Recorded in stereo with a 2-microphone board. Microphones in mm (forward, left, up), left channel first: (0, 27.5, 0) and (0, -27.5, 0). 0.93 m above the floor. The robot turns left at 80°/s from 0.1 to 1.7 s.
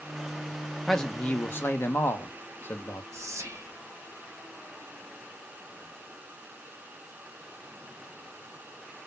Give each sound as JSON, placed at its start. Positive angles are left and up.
{"t": 0.9, "sound": "a man speaking", "azimuth_deg": 175, "distance_m": 0.6}
{"t": 3.1, "sound": "whispering", "side_deg": -70, "distance_m": 0.7}